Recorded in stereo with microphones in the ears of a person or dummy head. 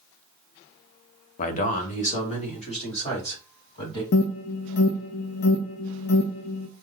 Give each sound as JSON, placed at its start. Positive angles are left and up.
{"t": 1.4, "sound": "a man speaking", "side_deg": 45, "distance_m": 0.7}
{"t": 4.1, "sound": "an alarm", "side_deg": 55, "distance_m": 0.6}